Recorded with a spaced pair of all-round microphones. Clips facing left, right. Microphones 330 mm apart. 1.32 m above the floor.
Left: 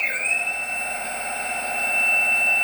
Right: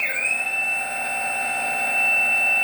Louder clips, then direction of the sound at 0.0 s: Even; 70° right (ahead or behind).